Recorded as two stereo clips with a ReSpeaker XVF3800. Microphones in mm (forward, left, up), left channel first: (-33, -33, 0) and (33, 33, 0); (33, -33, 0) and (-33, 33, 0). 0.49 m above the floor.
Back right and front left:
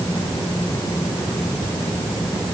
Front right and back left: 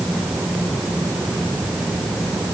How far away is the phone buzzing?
I don't hear a phone buzzing.